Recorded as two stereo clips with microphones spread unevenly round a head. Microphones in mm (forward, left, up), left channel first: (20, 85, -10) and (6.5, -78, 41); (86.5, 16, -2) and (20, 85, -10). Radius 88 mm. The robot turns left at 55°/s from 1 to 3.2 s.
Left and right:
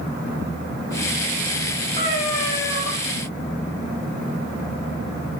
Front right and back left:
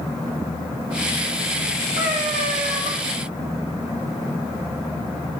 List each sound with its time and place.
2.0 s a cat meowing: 150° left, 7 m; by 2.9 s 95° left, 7 m